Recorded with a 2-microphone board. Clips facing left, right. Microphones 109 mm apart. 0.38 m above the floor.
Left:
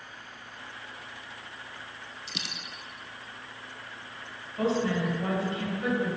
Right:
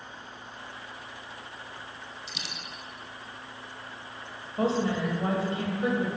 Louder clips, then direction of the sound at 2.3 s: Left 1 dB; 75° left (ahead or behind).